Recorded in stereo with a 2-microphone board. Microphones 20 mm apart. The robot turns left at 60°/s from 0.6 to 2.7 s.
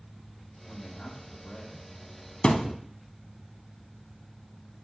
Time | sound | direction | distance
0.7 | a man speaking | 140° left | 1.7 m
2.4 | a thud | 60° left (ahead or behind) | 0.6 m